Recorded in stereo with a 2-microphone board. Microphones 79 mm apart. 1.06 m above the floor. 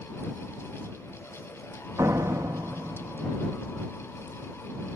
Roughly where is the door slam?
Right.